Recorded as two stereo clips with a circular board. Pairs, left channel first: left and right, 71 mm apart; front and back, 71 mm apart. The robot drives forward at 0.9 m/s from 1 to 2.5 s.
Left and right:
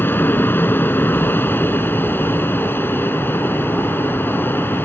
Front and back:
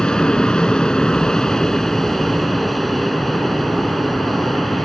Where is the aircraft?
70° left; by 4.9 s 85° left.